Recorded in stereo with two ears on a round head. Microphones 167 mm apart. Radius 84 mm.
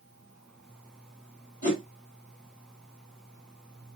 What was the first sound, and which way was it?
A whoosh, 45° left (ahead or behind).